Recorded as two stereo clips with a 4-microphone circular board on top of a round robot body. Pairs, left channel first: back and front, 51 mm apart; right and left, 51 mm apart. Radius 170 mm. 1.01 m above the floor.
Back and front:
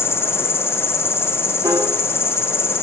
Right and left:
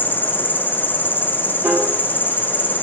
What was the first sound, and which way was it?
An insect, 140° right.